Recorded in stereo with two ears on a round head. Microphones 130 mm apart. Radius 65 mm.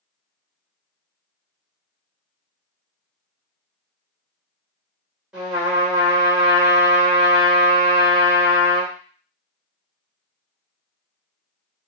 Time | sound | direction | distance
5.3 | a trumpet | 5° right (ahead or behind) | 1.8 m